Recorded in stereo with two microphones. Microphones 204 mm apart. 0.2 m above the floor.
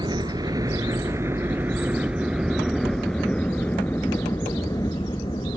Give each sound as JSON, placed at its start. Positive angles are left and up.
{"t": 0.0, "sound": "a helicopter", "side_deg": -20}